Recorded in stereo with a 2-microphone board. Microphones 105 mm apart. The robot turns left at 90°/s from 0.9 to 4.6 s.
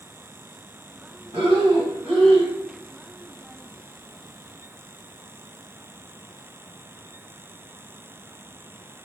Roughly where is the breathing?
Right.